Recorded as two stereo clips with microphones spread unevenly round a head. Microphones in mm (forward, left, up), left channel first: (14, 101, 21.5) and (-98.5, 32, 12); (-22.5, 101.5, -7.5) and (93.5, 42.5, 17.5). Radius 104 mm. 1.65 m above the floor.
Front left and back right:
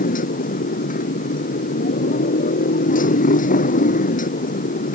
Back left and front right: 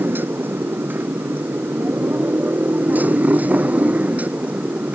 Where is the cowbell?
No cowbell in this recording.